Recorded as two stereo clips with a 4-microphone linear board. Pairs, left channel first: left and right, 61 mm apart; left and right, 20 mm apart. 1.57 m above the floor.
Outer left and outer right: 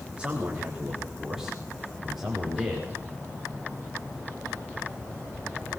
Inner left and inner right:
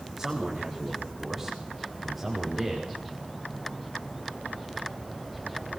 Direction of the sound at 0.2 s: 20° right (ahead or behind).